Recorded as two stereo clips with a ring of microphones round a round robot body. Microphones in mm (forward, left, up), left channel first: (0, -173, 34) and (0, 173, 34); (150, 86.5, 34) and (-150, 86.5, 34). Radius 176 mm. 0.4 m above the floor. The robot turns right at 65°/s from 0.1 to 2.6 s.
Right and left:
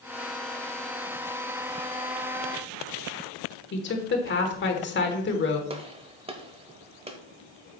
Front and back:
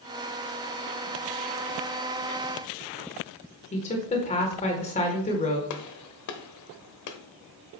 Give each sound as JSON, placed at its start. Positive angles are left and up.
{"t": 3.7, "sound": "a woman speaking", "azimuth_deg": -55, "distance_m": 1.3}
{"t": 5.7, "sound": "a gunshot", "azimuth_deg": 15, "distance_m": 1.1}